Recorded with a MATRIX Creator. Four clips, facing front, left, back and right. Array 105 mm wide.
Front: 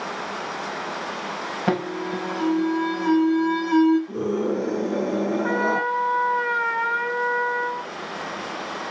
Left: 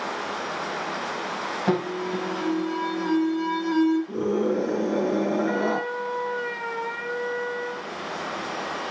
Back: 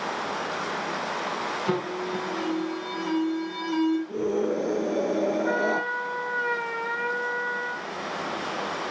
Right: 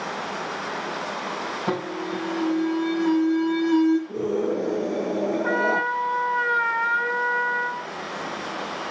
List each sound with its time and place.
1.7 s an alarm: 10° left, 6 m
4.1 s a scream: 35° left, 7 m
5.4 s a trumpet: 40° right, 2.5 m